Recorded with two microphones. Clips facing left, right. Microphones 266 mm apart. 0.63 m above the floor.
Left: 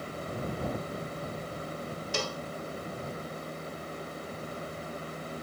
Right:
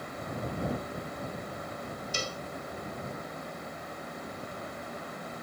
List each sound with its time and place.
2.1 s a cowbell: 80° left